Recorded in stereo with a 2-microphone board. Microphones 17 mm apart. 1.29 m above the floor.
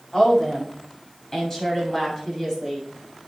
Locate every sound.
0.1 s a woman speaking: 35° left (ahead or behind), 7 m; by 2.9 s 15° left (ahead or behind), 7.5 m